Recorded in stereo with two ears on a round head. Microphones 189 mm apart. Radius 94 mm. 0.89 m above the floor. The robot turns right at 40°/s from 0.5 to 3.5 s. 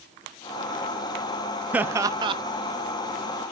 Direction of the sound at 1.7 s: 5° right (ahead or behind).